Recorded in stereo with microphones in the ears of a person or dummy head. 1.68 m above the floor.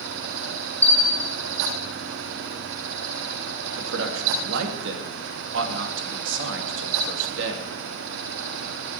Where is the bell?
10° left (ahead or behind), 0.7 m.